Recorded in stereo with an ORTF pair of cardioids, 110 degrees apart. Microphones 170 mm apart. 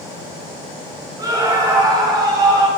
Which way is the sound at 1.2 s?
20° right.